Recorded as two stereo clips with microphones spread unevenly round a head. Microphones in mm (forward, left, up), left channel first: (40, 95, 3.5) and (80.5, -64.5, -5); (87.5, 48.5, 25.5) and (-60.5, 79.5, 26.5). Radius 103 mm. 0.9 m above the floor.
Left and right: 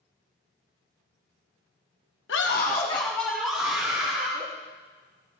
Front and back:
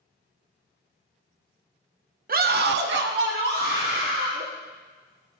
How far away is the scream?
About 1.4 m.